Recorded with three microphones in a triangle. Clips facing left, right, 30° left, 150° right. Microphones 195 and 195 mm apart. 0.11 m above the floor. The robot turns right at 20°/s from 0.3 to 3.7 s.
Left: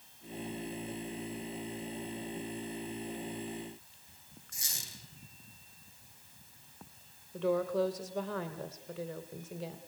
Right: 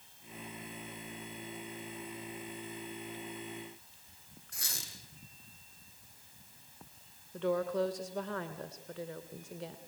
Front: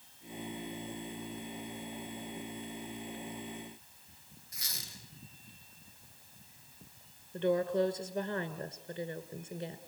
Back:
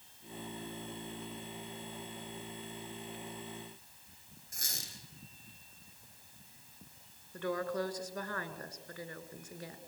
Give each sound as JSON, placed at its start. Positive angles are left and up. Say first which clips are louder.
{"t": 4.5, "sound": "a squeak", "louder": "right 4 dB, back 2 dB", "azimuth_deg": -110, "distance_m": 3.5}
{"t": 7.3, "sound": "a woman speaking", "louder": "left 2 dB, front 6 dB", "azimuth_deg": 0, "distance_m": 1.4}